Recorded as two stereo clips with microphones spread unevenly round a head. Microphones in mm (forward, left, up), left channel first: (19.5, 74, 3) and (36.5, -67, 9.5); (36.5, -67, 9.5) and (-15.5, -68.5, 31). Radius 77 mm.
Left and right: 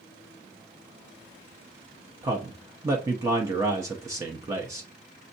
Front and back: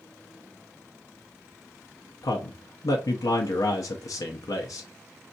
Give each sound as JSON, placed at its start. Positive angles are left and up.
{"t": 2.2, "sound": "a man speaking", "azimuth_deg": -15, "distance_m": 0.6}